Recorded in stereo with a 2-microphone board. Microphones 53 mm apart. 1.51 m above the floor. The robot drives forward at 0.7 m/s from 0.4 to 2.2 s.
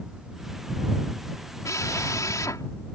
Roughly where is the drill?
Left.